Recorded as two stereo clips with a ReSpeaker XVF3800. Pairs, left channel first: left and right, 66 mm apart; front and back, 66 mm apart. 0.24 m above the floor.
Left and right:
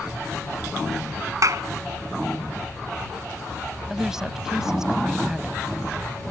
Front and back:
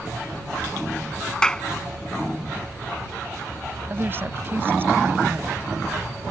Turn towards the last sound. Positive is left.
turn(degrees=-165)